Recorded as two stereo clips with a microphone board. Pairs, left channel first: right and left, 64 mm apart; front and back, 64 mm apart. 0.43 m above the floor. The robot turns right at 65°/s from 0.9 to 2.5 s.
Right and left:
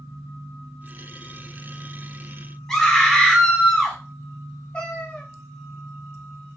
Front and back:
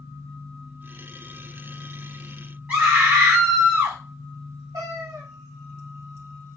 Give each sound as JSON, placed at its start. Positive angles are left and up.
{"t": 2.7, "sound": "a scream", "azimuth_deg": -155, "distance_m": 0.9}
{"t": 4.7, "sound": "a cat meowing", "azimuth_deg": -165, "distance_m": 0.7}